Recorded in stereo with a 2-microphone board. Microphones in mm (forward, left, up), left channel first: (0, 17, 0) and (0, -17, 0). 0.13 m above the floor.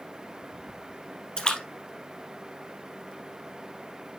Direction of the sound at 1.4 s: 25° left (ahead or behind).